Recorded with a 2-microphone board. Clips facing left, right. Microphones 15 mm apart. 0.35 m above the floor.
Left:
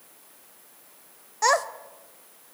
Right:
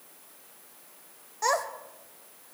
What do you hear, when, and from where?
1.4 s a child speaking: 35° left (ahead or behind), 0.6 m